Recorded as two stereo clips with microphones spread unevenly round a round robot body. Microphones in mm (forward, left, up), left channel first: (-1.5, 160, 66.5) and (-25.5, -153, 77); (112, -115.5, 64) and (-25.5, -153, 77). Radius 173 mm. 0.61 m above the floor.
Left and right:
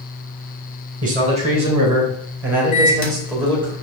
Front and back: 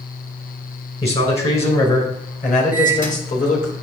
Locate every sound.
1.0 s a man speaking: 30° right, 3.5 m; by 3.7 s 5° left, 3.5 m
2.7 s a microwave: 50° left, 1.9 m